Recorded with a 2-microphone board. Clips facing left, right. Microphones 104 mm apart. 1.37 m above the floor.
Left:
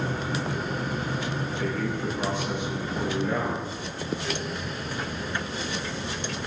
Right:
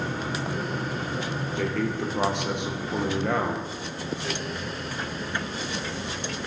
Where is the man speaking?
70° right (ahead or behind), 1.0 m.